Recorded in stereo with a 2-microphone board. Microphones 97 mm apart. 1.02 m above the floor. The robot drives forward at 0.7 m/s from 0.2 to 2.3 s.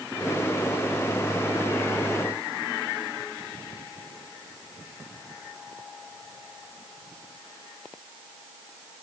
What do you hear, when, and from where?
Only background noise.